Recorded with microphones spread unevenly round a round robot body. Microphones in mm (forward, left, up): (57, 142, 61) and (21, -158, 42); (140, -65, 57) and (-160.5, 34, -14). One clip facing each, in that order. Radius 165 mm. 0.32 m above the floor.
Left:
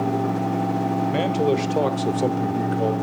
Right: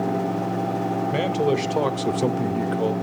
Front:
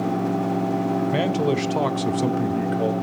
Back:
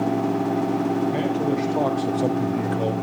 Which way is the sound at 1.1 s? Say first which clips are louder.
Even, front 1 dB; 10° right.